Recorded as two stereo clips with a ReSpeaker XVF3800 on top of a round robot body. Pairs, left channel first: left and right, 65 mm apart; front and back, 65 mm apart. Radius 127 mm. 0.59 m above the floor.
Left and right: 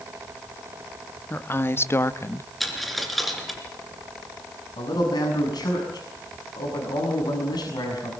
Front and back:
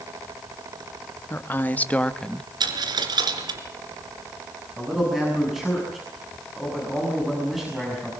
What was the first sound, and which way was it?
A woman speaking, 45° left.